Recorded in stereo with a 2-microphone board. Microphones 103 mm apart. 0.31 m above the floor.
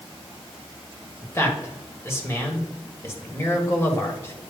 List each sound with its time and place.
1.2 s a man speaking: 25° left (ahead or behind), 1.3 m